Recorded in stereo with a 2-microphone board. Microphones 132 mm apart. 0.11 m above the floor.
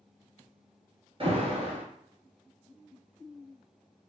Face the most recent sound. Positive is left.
turn(degrees=-40)  # may be behind; listen again after turning